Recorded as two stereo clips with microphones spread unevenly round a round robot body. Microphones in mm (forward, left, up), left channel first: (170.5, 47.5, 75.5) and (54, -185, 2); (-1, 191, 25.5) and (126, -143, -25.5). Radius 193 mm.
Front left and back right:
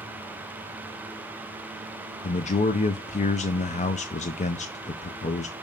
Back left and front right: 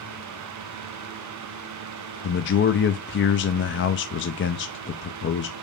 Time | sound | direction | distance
2.2 | a man speaking | 130° left | 0.5 m